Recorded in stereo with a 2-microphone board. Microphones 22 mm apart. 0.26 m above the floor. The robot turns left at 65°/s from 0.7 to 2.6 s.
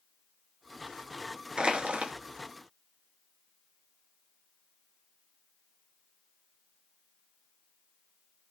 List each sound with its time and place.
1.6 s crushing: 50° right, 0.8 m; by 2.1 s 85° right, 0.8 m